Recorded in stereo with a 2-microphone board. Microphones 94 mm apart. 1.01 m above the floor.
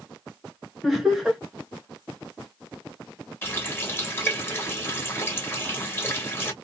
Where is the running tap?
25° left (ahead or behind), 0.9 m.